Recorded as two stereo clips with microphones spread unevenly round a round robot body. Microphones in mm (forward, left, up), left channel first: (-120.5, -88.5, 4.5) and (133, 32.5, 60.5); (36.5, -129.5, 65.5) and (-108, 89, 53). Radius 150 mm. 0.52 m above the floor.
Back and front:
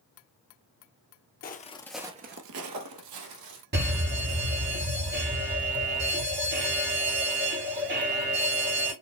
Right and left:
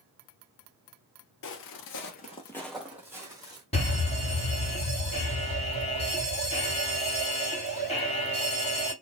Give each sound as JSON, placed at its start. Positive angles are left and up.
{"t": 1.4, "sound": "footsteps", "azimuth_deg": -95, "distance_m": 0.9}
{"t": 3.7, "sound": "a fire alarm", "azimuth_deg": -10, "distance_m": 2.5}